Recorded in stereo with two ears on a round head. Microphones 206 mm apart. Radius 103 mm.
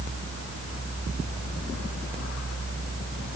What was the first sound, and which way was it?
Only background noise.